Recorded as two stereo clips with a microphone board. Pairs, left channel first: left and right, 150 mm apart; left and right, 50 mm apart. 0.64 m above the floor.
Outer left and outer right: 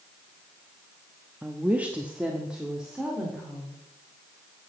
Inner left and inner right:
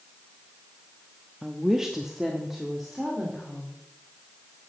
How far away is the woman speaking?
About 0.7 m.